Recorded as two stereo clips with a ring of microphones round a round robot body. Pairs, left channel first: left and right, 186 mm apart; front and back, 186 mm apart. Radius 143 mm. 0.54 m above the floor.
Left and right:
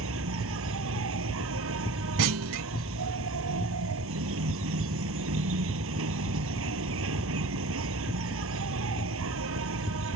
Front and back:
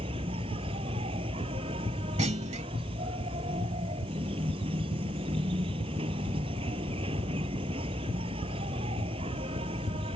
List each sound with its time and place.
0.0 s an insect: 110° right
2.2 s a clunk: 115° right